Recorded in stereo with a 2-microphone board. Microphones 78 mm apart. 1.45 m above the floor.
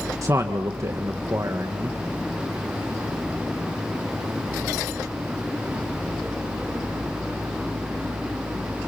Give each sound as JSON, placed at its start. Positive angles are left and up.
{"t": 0.2, "sound": "a man speaking", "side_deg": -40, "distance_m": 1.6}